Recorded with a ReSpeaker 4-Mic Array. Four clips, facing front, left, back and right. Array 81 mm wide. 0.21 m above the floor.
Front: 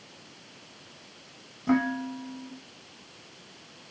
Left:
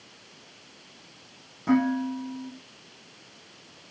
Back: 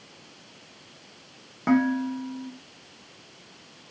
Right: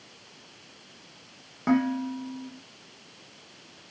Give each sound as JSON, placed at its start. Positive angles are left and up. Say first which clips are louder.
{"t": 1.7, "sound": "dishes clattering", "louder": "left 1 dB, back 4 dB", "azimuth_deg": -145, "distance_m": 9.5}